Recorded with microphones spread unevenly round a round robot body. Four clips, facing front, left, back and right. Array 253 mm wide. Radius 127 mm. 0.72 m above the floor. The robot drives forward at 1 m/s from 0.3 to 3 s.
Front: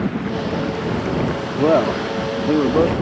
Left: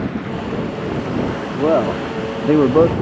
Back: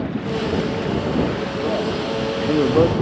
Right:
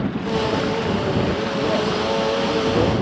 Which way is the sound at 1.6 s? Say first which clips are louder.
Left 8 dB, front 9 dB; 35° left.